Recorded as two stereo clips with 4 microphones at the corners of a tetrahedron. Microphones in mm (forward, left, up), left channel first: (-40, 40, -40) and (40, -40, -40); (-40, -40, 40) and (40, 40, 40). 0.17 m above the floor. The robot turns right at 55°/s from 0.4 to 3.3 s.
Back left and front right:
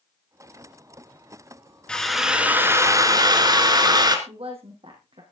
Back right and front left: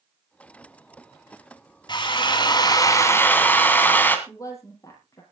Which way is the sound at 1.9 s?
145° right.